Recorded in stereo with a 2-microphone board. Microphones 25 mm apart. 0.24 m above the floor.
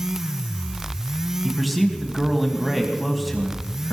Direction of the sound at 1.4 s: Centre (ahead or behind).